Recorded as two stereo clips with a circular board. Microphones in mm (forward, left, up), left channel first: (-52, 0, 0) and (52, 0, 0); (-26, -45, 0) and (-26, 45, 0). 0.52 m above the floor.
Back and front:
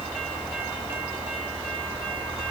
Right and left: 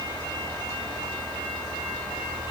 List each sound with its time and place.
Only background noise.